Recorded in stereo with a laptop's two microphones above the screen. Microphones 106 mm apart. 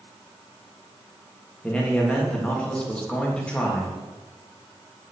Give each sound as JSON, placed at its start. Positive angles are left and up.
{"t": 1.6, "sound": "a man speaking", "side_deg": 10, "distance_m": 1.1}